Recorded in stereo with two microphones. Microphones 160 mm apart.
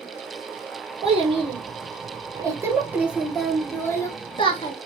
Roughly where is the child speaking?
Right.